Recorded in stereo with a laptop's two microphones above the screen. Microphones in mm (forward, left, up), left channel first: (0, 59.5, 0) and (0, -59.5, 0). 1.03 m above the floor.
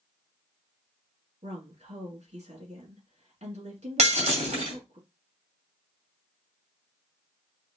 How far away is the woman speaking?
About 2 m.